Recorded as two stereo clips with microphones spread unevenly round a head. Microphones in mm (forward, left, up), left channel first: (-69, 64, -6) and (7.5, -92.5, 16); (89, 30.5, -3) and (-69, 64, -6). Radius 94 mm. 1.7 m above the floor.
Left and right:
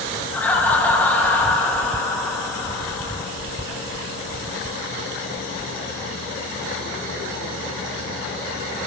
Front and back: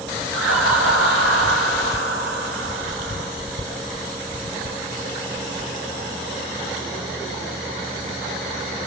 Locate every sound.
0.3 s laughter: 165° right, 9 m